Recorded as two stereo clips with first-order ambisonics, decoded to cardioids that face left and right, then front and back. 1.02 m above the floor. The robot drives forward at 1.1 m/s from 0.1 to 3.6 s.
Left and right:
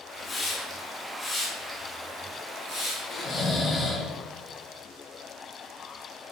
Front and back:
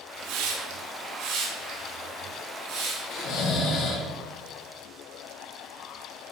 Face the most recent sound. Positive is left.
turn(degrees=25)